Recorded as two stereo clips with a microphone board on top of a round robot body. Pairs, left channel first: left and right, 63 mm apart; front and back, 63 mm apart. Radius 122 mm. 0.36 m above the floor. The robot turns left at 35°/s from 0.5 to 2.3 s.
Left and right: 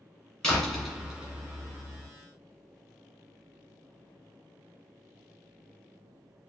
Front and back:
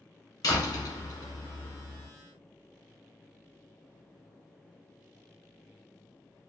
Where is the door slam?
15° left, 1.4 m; by 2.1 s 40° right, 1.4 m.